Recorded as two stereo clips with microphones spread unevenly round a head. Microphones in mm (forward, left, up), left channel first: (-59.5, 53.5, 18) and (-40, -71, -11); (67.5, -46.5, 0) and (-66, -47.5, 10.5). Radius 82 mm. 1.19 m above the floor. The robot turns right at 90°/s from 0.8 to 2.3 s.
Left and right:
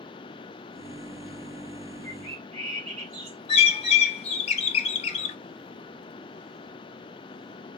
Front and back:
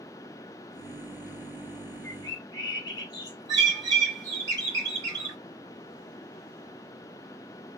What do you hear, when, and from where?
2.0 s a bird: 70° right, 1.2 m; by 3.4 s 50° right, 1.2 m
3.5 s a bird: 115° left, 0.9 m